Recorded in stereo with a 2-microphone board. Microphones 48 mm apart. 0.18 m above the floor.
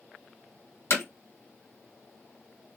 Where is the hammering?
55° left (ahead or behind), 1.3 m.